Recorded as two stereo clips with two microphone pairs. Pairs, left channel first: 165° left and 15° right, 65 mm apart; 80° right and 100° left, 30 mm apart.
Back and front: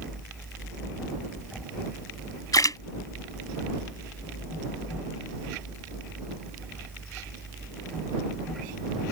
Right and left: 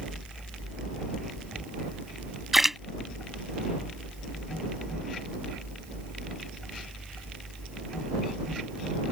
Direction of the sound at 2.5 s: 175° right.